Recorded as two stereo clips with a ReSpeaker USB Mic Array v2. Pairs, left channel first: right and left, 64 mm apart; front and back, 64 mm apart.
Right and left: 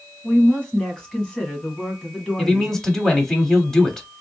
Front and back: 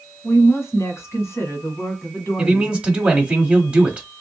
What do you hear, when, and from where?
0.2 s a woman speaking: 15° right, 1.7 m
2.4 s a man speaking: 155° right, 1.1 m